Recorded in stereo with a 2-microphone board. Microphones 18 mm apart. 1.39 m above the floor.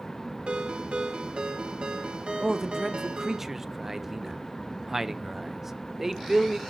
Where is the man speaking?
15° right (ahead or behind), 0.8 m.